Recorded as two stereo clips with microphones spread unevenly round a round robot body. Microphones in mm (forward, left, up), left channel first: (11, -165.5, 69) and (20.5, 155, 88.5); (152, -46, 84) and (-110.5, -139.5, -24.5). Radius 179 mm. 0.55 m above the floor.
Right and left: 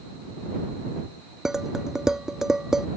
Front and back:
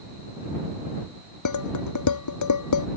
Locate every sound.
1.4 s dishes clattering: straight ahead